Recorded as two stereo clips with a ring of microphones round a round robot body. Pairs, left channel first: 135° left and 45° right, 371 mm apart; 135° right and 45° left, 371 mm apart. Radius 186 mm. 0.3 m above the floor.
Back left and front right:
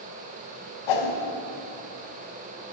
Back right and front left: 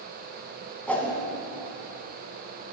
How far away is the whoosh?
About 1.2 m.